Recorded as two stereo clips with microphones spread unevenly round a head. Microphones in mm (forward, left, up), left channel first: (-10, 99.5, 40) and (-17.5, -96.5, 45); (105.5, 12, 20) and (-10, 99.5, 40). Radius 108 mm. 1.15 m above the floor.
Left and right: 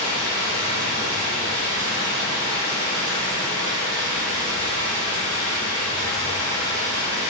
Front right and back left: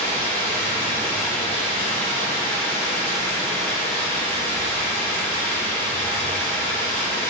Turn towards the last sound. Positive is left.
turn(degrees=-80)